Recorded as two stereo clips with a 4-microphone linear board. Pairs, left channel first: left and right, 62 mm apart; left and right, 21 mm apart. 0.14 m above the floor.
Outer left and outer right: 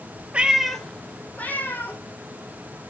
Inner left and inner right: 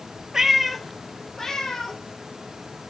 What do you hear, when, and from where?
0.3 s a cat meowing: 20° right (ahead or behind), 0.8 m; by 2.0 s 35° left (ahead or behind), 2.0 m